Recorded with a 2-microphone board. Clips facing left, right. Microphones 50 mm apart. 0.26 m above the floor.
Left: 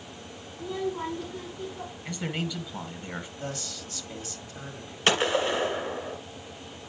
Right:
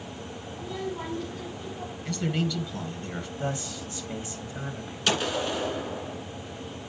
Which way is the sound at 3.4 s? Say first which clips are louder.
Right 5 dB; 25° right (ahead or behind).